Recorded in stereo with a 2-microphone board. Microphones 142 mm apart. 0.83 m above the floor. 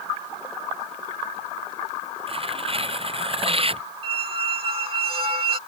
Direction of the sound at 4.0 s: 40° right (ahead or behind).